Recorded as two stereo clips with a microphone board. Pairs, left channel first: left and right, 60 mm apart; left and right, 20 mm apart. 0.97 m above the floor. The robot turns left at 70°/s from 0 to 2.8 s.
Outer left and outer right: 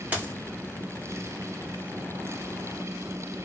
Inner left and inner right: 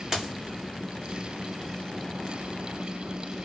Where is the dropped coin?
30° right (ahead or behind), 0.8 m; by 0.3 s 40° right (ahead or behind), 0.8 m.